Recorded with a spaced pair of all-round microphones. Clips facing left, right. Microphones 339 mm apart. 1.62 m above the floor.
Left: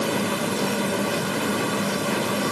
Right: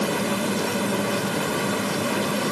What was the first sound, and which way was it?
Only background noise.